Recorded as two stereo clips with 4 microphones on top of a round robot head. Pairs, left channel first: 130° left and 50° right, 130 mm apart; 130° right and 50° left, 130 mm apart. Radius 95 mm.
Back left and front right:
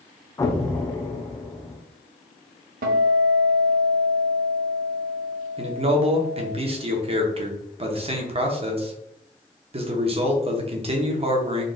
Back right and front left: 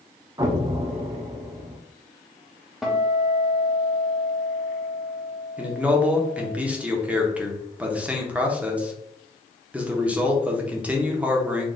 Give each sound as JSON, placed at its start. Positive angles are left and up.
{"t": 0.4, "sound": "an explosion", "azimuth_deg": 85, "distance_m": 0.7}
{"t": 2.8, "sound": "a guitar", "azimuth_deg": -40, "distance_m": 0.7}
{"t": 5.6, "sound": "a man speaking", "azimuth_deg": -30, "distance_m": 1.1}